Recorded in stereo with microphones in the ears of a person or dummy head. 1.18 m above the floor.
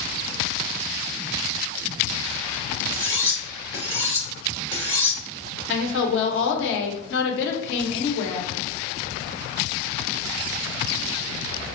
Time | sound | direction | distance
2.9 | cutlery clinking | 35° left (ahead or behind) | 1.4 m
5.7 | a woman speaking | 75° left (ahead or behind) | 0.9 m